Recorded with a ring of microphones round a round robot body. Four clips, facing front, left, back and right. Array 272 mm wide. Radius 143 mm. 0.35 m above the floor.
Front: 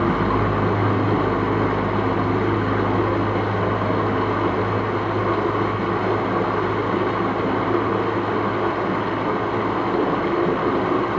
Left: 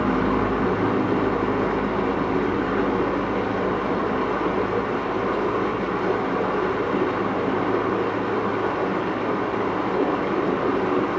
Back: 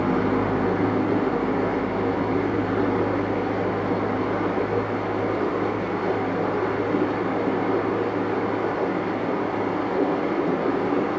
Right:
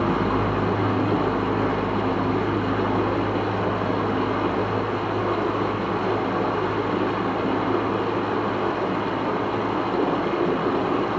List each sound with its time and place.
0.0 s running water: 10° right, 2 m